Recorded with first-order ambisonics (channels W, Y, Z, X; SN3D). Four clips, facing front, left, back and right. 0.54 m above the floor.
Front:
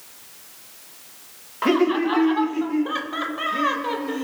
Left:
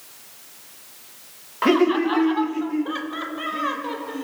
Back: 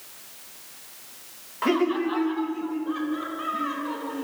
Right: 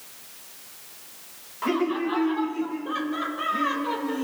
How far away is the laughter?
About 1.0 m.